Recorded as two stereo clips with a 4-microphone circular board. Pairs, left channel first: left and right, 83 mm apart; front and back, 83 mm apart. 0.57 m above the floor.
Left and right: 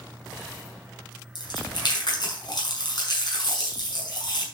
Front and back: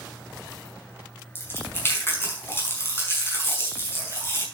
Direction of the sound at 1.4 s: 60° left.